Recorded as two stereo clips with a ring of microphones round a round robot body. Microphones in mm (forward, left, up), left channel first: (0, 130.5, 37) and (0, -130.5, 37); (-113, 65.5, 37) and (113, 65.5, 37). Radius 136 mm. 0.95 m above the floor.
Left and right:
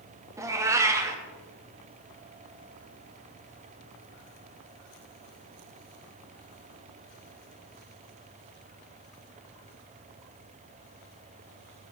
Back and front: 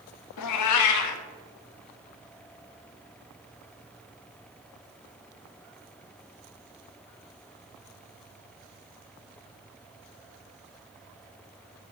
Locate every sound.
0.4 s a cat meowing: 170° right, 0.6 m